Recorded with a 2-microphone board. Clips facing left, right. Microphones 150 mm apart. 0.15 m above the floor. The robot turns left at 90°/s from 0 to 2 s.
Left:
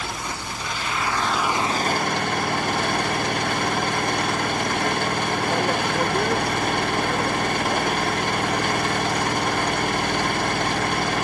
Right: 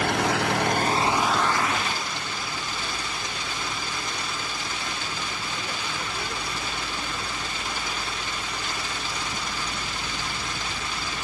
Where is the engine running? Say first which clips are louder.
Right 8 dB; 60° right; by 11.2 s 120° left.